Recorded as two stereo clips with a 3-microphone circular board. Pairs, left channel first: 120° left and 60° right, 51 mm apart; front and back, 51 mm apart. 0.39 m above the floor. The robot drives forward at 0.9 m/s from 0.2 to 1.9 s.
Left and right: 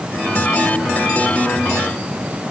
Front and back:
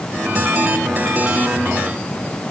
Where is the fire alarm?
I don't hear a fire alarm.